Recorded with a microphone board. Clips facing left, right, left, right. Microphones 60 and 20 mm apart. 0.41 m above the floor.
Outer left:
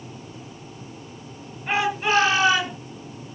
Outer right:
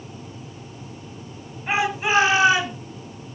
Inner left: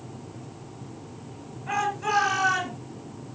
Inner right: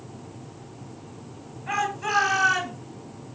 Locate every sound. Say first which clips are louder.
1.7 s a shout: even, even; 10° right (ahead or behind), 9 m